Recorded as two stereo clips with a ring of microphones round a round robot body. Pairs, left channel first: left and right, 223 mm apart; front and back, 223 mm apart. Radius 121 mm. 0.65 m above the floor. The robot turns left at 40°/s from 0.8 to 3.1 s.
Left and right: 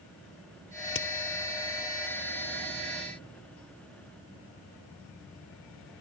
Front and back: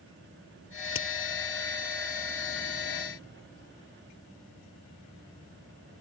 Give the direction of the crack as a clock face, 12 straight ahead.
11 o'clock.